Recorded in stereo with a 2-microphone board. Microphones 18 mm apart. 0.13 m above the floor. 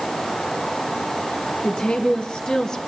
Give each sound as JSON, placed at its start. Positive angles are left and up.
{"t": 1.6, "sound": "a woman speaking", "side_deg": 60, "distance_m": 2.5}